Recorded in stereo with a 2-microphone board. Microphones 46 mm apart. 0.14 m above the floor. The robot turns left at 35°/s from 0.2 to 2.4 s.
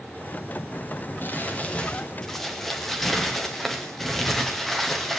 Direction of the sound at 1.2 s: 45° left.